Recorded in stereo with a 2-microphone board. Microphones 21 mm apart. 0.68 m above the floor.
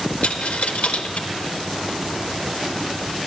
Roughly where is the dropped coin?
Left.